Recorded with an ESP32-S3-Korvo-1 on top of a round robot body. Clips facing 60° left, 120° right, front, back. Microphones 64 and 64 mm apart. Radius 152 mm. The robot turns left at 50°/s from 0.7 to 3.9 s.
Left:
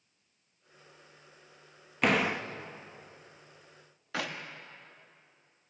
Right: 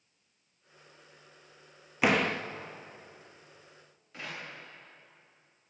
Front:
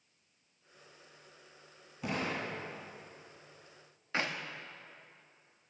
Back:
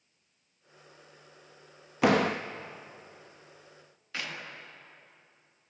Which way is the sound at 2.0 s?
155° left.